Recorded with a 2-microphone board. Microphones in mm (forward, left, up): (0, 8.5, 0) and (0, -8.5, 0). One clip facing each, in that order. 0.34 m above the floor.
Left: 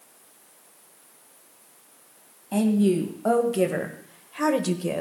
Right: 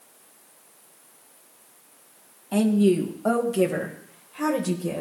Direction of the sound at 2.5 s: 5° right (ahead or behind).